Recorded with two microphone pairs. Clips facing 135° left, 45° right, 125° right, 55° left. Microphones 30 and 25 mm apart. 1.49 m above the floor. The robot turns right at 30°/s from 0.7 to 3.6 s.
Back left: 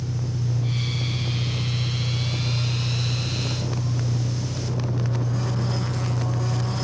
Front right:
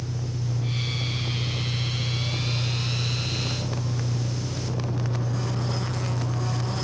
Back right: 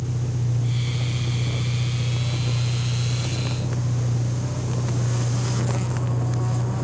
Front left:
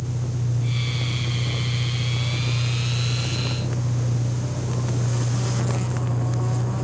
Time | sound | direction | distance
0.0 | an engine running | 115° right | 1.4 m